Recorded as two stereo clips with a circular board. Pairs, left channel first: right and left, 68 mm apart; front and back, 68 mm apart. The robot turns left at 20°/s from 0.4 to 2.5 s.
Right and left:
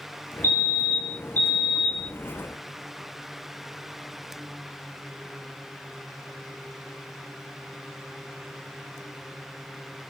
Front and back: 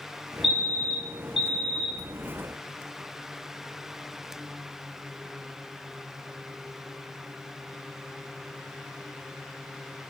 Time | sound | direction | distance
0.4 | a fire alarm | 90° right | 1.9 m